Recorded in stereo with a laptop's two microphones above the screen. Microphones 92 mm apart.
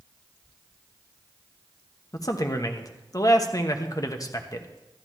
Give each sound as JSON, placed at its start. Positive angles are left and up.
{"t": 2.1, "sound": "a man speaking", "side_deg": 40, "distance_m": 1.1}